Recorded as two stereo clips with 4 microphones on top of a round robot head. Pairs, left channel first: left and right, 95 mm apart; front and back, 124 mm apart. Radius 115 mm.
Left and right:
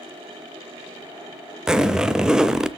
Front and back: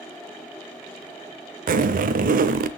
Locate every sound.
1.7 s a zipper: 175° right, 0.7 m